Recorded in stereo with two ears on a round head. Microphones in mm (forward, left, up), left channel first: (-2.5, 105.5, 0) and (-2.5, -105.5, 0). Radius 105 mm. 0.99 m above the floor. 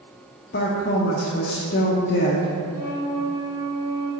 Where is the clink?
I don't hear a clink.